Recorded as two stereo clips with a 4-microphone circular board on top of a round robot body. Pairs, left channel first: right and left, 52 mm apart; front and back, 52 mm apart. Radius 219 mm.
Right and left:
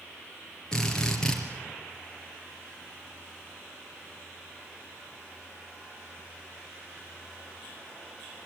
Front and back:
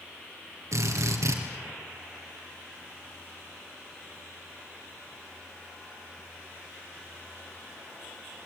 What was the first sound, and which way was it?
A drill, 165° right.